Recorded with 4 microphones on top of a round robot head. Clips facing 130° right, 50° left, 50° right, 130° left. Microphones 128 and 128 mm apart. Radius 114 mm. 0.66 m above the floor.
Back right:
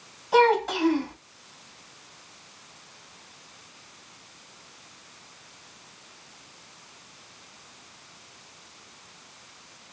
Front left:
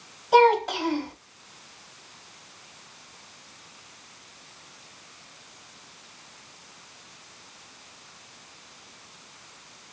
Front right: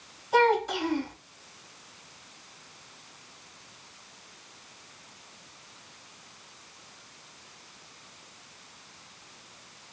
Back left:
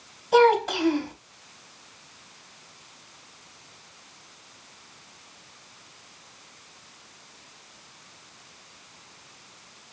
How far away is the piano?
No piano in this recording.